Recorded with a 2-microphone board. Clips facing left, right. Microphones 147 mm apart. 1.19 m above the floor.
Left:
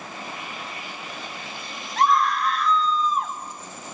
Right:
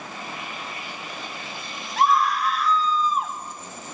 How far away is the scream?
About 4 m.